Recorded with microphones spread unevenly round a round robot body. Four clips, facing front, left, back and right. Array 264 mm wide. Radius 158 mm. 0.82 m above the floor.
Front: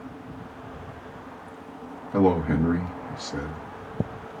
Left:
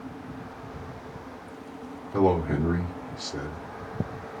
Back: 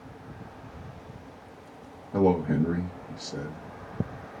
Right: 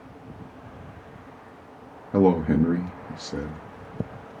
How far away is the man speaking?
About 0.8 m.